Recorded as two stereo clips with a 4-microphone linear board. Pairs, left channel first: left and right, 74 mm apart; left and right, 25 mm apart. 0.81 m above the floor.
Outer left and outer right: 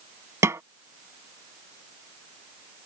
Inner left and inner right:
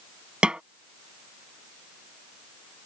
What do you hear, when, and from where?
0.4 s a snare drum: 45° right (ahead or behind)